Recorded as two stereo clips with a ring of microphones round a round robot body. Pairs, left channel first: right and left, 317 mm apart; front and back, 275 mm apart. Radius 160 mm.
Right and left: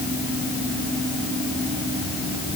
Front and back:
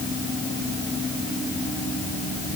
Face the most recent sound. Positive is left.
No sound to turn to.